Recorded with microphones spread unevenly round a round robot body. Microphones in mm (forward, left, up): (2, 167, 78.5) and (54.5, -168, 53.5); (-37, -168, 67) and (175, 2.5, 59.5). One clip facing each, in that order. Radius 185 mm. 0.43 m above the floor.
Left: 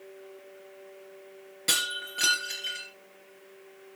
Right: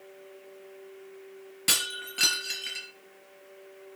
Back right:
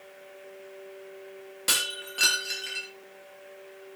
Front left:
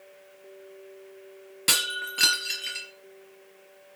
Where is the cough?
No cough in this recording.